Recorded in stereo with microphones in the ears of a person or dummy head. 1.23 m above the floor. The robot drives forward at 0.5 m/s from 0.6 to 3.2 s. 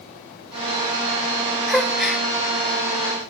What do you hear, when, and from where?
1.7 s a gasp: centre (ahead or behind), 1.0 m